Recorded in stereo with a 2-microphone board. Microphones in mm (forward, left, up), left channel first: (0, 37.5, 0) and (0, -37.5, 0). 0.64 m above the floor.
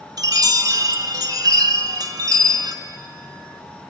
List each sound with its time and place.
0.2 s a chime: 60° right (ahead or behind), 1.9 m